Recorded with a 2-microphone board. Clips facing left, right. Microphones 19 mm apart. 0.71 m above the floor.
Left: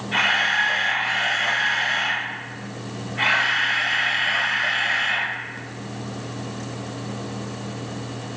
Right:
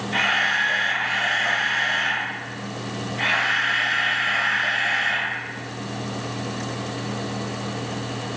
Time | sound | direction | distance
0.1 | a camera shutter | 50° left (ahead or behind) | 1.5 m